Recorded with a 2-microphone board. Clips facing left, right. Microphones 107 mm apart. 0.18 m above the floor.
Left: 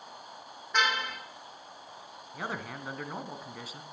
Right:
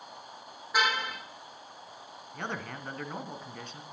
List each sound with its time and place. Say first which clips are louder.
0.7 s a car horn: right 1 dB; 10° right (ahead or behind), 4 m
2.3 s a man speaking: even; 5° left (ahead or behind), 1.4 m